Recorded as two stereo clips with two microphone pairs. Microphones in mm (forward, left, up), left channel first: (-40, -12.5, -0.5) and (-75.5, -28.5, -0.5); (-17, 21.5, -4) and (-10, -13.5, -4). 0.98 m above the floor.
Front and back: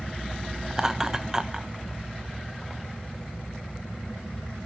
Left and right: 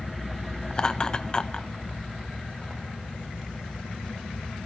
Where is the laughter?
145° left, 1.0 m.